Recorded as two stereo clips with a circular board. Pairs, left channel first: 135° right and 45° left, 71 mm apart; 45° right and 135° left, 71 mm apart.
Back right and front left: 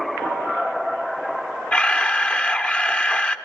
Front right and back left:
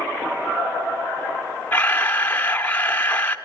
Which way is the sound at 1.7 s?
85° right.